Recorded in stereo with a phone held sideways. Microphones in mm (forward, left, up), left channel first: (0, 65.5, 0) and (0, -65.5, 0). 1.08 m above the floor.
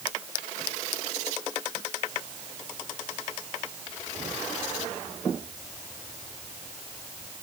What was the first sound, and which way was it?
Only background noise.